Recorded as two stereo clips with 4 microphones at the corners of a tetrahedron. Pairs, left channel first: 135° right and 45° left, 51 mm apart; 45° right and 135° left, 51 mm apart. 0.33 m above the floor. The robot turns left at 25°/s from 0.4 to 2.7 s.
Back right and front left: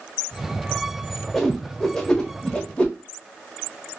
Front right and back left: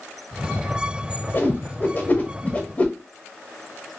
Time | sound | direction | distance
1.3 | a whoosh | 45° right | 0.6 m